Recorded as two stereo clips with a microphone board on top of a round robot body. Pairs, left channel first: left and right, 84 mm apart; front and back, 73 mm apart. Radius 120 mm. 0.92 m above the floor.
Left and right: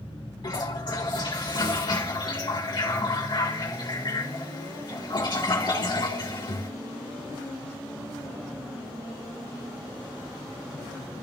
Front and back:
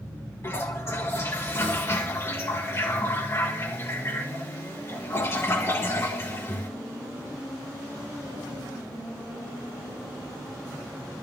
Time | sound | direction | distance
0.4 | a toilet flushing | 55° left | 3.5 m